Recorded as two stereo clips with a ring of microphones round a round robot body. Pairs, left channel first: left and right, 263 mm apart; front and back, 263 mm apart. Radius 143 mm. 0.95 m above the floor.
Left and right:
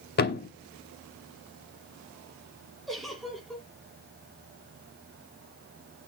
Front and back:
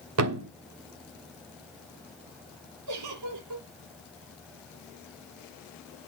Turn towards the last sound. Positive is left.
turn(degrees=180)